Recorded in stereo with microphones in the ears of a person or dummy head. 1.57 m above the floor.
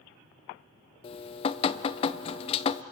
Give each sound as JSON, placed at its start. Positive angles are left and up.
{"t": 1.0, "sound": "dripping", "side_deg": 30, "distance_m": 0.6}